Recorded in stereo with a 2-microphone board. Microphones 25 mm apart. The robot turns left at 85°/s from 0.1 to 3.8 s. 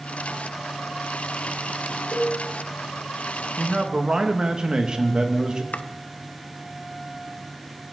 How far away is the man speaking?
About 1.9 m.